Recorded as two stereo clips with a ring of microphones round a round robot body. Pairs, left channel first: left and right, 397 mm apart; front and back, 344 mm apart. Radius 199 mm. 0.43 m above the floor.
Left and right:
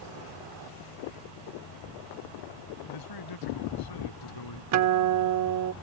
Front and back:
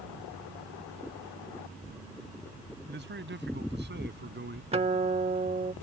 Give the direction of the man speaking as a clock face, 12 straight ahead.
8 o'clock.